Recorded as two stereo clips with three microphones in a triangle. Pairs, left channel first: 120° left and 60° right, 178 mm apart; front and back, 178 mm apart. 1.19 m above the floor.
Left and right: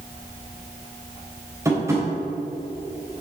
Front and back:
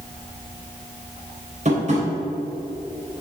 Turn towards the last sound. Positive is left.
turn(degrees=-135)